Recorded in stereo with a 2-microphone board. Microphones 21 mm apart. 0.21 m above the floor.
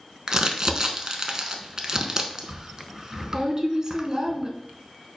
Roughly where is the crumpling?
Right.